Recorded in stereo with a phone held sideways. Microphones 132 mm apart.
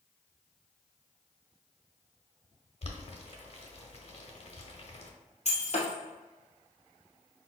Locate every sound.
2.8 s boiling: 50° left (ahead or behind), 0.7 m
5.5 s breaking glass: 50° left (ahead or behind), 1.9 m